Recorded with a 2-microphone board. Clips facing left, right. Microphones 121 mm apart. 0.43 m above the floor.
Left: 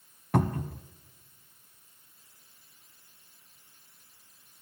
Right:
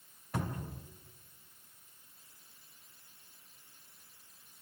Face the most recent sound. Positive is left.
turn(degrees=70)  # may be behind; listen again after turning